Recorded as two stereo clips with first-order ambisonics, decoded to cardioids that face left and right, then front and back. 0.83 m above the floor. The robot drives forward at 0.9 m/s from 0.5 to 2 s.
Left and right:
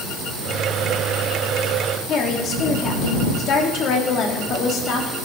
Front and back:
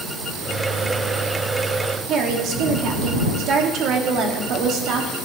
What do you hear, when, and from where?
2.1 s a woman speaking: 140° left, 1.6 m